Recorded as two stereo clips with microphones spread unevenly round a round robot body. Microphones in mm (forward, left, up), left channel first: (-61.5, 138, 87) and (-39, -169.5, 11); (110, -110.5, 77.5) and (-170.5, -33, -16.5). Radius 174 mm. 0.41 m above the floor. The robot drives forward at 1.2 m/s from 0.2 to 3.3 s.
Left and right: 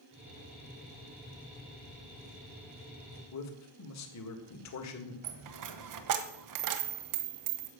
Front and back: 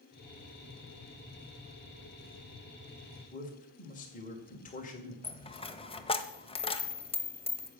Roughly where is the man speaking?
Ahead left.